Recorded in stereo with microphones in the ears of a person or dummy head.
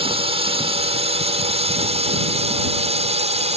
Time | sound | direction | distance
0.0 | a drone | 30° right (ahead or behind) | ?